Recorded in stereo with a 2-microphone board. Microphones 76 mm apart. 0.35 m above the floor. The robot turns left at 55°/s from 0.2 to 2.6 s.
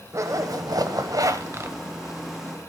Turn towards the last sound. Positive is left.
turn(degrees=170)